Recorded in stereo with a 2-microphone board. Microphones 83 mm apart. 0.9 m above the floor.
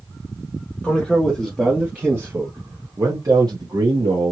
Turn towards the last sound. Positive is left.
turn(degrees=-60)  # may be behind; listen again after turning